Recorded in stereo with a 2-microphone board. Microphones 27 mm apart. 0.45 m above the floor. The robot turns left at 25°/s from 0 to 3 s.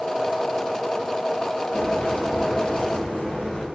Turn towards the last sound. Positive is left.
turn(degrees=40)